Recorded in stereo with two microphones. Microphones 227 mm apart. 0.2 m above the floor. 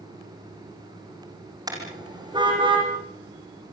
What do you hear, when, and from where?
1.7 s a car horn: 15° right (ahead or behind), 6.5 m; by 2.9 s 20° right (ahead or behind), 6.5 m